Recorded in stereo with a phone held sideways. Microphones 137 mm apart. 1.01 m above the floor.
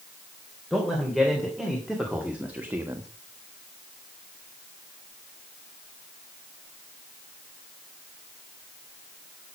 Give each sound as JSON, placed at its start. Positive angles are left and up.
{"t": 0.7, "sound": "a man speaking", "side_deg": 0, "distance_m": 4.0}